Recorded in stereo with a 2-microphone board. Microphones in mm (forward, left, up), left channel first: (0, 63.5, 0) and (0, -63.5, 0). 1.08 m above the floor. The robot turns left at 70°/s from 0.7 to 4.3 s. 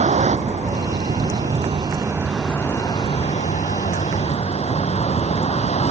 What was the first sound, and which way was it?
A vehicle, 65° right (ahead or behind).